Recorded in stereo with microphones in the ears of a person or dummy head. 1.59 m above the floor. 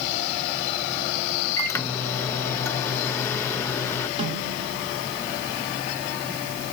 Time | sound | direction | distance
1.6 | a microwave | 15° left (ahead or behind) | 0.6 m
4.2 | a snare drum | 35° right (ahead or behind) | 2.5 m